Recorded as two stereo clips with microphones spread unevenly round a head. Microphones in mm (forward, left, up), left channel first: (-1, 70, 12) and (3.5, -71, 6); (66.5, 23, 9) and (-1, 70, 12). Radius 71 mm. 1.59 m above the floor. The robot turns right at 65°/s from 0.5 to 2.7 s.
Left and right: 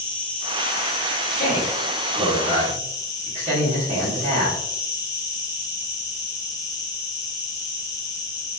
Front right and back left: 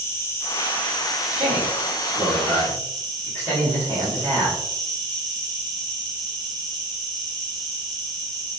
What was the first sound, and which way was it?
An insect, 10° left.